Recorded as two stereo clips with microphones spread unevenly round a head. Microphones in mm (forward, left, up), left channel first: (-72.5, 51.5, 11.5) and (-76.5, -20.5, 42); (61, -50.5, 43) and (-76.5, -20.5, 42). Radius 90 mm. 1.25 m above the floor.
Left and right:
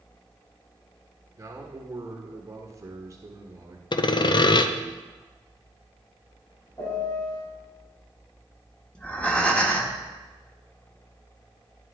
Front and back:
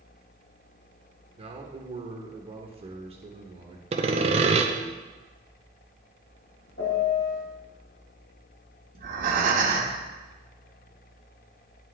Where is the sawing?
110° left, 0.6 m.